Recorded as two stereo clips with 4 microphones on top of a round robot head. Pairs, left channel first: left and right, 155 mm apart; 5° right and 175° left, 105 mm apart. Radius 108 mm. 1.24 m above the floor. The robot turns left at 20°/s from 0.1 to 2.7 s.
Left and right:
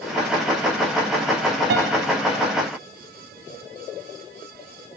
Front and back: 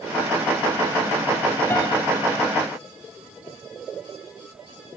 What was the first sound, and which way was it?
A piano, 80° right.